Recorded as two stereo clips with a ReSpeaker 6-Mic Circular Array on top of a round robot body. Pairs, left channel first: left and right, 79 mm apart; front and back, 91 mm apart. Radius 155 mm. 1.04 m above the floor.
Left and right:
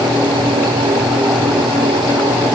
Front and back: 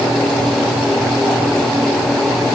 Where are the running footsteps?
No running footsteps in this recording.